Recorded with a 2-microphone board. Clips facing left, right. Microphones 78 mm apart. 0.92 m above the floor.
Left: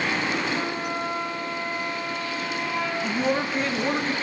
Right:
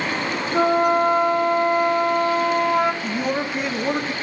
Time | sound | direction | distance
0.5 | a flute | 65° right (ahead or behind) | 0.5 m
3.0 | a man speaking | 10° right (ahead or behind) | 0.6 m